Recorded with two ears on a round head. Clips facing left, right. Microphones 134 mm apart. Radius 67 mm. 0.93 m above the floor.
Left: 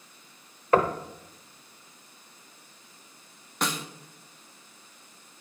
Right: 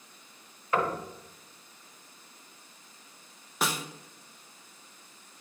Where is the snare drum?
5° right (ahead or behind), 0.6 m.